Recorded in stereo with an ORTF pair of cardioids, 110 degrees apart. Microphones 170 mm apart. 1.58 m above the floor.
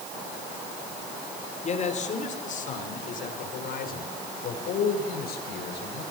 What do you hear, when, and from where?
1.6 s a man speaking: 40° left, 5.5 m; by 6.0 s 70° left, 7.5 m